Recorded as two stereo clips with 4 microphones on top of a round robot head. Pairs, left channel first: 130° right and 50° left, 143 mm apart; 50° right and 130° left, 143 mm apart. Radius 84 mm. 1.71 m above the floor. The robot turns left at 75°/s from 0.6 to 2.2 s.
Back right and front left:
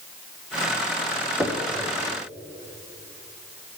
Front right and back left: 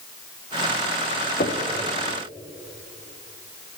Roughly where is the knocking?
Ahead right.